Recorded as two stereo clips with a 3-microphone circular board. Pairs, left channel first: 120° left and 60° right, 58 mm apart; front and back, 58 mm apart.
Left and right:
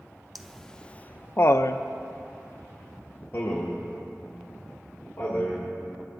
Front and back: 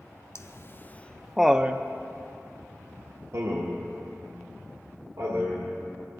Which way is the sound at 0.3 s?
30° left.